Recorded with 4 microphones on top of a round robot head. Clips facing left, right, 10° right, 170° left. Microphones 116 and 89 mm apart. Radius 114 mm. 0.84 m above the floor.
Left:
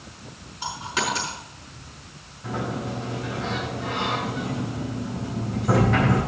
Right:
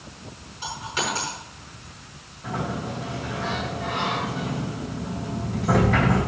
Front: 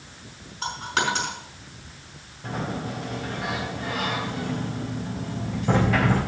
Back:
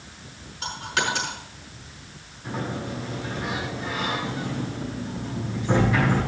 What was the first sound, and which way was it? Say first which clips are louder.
A dropped coin: left 1 dB, front 1 dB; 40° left.